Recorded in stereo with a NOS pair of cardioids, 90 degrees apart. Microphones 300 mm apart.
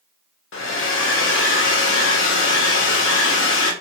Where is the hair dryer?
45° left, 0.9 m.